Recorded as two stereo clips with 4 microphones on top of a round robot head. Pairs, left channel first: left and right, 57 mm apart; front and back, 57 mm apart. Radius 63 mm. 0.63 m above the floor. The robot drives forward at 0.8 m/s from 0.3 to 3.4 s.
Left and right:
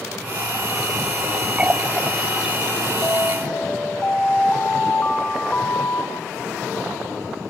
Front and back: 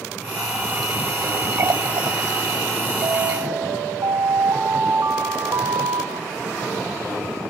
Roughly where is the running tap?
Behind right.